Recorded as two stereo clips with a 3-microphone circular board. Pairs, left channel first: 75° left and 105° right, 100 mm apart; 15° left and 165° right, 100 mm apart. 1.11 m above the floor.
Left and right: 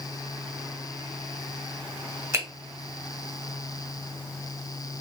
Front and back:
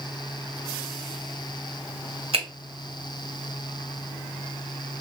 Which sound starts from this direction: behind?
A finger snap, at 2.3 s.